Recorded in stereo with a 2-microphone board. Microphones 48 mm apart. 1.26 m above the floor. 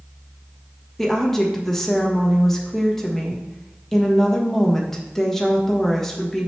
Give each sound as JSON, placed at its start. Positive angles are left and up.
{"t": 1.0, "sound": "a woman speaking", "side_deg": 5, "distance_m": 1.4}